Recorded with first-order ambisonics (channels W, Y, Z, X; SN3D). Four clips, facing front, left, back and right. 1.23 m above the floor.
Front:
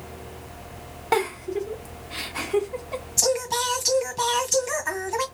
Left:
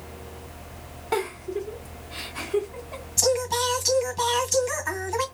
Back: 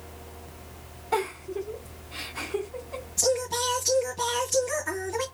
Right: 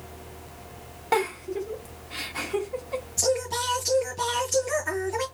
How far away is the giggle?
About 1.1 m.